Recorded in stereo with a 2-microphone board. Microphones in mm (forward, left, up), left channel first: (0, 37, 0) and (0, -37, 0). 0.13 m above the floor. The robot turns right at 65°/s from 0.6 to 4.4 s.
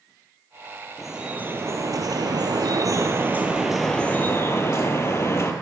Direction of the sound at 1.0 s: 175° left.